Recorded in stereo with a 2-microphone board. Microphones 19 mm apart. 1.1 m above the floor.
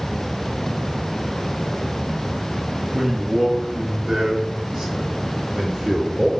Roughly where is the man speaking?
Right.